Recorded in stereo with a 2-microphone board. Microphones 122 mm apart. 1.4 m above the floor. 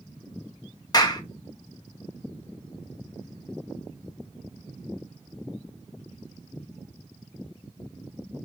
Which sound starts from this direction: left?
A clap, at 0.9 s.